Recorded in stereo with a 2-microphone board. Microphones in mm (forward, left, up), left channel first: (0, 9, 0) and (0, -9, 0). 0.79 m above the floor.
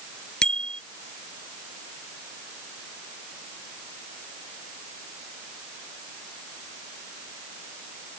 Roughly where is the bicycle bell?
Left.